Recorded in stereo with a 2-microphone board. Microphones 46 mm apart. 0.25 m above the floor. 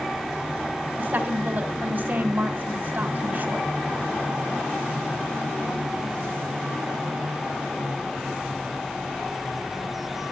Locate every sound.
1.0 s a woman speaking: 45° right (ahead or behind), 2.0 m